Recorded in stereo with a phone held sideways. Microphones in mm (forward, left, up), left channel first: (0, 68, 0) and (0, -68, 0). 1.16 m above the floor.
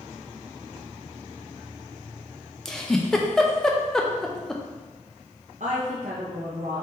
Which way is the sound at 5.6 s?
60° right (ahead or behind).